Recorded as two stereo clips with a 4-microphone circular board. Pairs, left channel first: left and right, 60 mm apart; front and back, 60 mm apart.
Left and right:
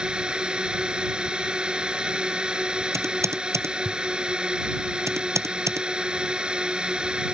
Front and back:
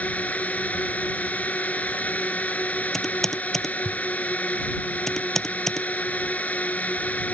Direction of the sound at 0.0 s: 30° right.